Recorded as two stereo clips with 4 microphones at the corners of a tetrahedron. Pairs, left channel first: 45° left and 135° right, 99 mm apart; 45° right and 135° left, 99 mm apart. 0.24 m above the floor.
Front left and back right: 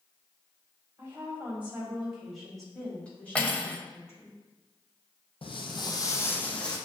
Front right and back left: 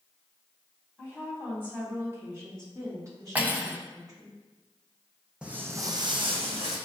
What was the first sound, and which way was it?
A woman speaking, 165° right.